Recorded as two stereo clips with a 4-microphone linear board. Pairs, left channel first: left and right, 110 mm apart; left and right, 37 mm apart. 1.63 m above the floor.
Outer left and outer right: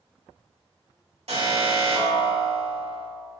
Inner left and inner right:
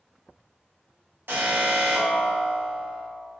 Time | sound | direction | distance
1.3 | an alarm | 65° right (ahead or behind) | 3 m